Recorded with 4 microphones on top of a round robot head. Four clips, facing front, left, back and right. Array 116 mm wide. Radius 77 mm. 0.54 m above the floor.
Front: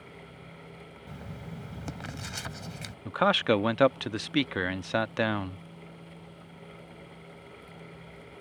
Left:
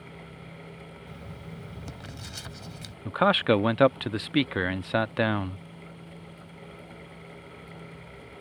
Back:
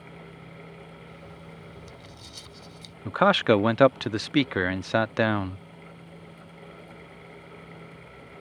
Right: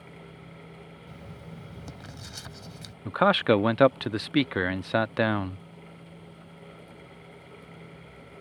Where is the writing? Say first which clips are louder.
Left 1 dB, front 2 dB; 5° right.